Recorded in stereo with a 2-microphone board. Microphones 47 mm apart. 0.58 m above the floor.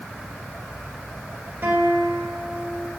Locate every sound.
1.6 s a guitar: 50° right (ahead or behind), 2.5 m